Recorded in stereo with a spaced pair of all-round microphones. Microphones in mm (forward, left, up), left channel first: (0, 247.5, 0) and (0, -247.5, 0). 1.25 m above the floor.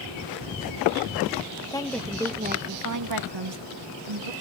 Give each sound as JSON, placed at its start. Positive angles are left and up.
{"t": 1.7, "sound": "a woman speaking", "side_deg": 10, "distance_m": 1.0}